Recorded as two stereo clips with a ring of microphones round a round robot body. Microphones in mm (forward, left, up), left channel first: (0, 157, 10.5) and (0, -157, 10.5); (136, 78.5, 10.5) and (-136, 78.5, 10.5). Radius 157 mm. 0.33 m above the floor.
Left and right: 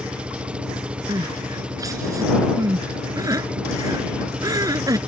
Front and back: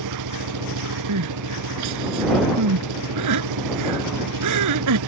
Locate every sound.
0.0 s an engine running: 175° right
1.1 s crying: 170° right